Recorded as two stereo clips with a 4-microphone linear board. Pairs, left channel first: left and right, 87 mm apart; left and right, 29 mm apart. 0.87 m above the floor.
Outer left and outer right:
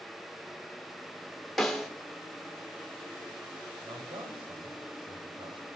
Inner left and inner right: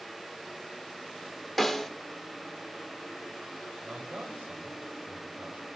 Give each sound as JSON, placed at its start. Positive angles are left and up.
{"t": 1.6, "sound": "a snare drum", "side_deg": 0, "distance_m": 1.6}
{"t": 3.8, "sound": "a man speaking", "side_deg": -85, "distance_m": 3.5}